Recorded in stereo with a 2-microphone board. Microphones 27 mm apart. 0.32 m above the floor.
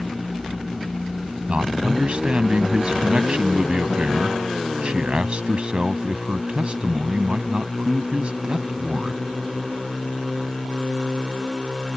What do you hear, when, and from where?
1.5 s a man speaking: 45° right (ahead or behind)